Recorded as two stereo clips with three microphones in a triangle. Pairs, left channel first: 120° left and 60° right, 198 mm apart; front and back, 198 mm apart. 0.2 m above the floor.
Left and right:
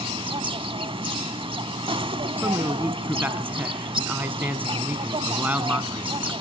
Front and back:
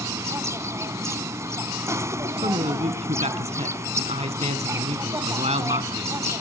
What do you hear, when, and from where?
0.0 s an insect: 110° right, 0.8 m
2.4 s a man speaking: 140° right, 1.8 m